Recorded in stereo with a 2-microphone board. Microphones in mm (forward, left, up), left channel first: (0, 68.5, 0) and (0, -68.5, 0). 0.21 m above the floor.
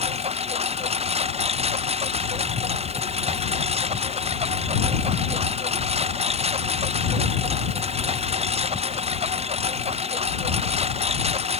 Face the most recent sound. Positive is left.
turn(degrees=-55)  # may be behind; listen again after turning